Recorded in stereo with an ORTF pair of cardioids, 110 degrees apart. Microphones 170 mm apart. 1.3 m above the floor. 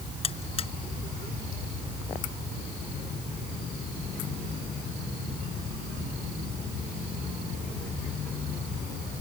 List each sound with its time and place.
0.2 s a buzzer: 35° left